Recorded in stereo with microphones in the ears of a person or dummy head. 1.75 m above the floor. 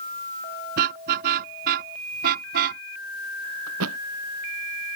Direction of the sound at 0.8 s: 50° right (ahead or behind).